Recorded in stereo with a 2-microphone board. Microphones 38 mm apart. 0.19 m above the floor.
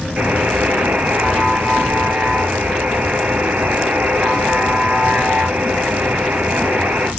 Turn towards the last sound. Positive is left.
turn(degrees=-45)  # may be behind; listen again after turning